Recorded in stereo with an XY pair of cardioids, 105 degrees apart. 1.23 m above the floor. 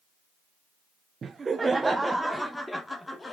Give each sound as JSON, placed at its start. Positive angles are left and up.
{"t": 1.2, "sound": "laughter", "azimuth_deg": -40, "distance_m": 0.9}